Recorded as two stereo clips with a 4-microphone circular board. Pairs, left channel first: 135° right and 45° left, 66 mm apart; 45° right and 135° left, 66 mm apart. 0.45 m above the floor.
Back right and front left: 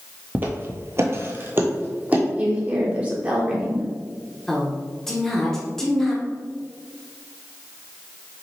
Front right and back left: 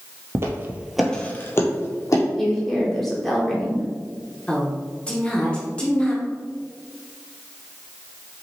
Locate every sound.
0.3 s footsteps: 100° left, 0.7 m; by 2.2 s 20° right, 1.1 m
2.4 s a woman speaking: 40° left, 0.8 m
4.5 s a woman speaking: 65° right, 0.8 m